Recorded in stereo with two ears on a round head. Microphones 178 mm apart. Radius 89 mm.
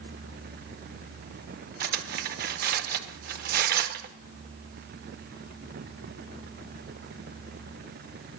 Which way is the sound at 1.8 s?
50° right (ahead or behind).